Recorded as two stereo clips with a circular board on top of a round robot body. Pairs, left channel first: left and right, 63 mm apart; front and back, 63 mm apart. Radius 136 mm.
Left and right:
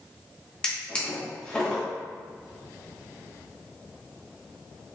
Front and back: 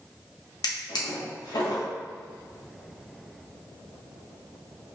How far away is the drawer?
About 1.0 m.